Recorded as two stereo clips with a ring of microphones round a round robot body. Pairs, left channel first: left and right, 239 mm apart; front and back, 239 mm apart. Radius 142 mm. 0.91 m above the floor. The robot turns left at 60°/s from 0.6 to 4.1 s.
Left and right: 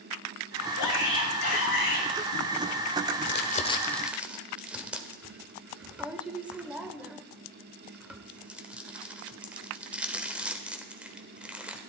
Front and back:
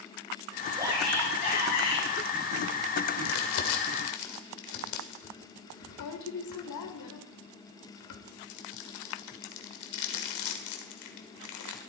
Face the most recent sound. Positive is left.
turn(degrees=-5)